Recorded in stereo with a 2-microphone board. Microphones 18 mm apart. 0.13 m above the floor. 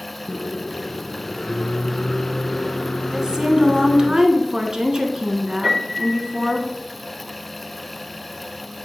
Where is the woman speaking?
30° right (ahead or behind), 1.2 m.